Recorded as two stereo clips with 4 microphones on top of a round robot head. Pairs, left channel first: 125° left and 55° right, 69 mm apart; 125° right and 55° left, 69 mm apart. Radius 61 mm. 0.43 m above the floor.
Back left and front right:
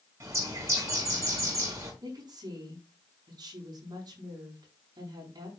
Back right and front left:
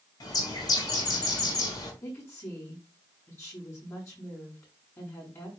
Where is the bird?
100° right, 5 m.